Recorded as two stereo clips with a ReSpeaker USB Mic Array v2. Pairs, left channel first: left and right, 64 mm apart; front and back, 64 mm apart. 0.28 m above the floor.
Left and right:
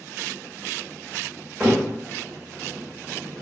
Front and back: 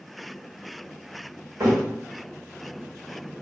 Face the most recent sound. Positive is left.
turn(degrees=-175)